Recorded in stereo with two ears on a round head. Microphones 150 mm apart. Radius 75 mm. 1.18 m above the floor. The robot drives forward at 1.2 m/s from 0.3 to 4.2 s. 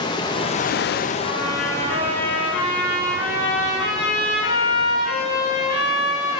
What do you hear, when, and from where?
0.0 s running water: 25° left (ahead or behind), 0.8 m; by 6.4 s 5° left (ahead or behind), 4 m
1.2 s a trumpet: 80° left, 3 m; by 6.4 s 40° left (ahead or behind), 5 m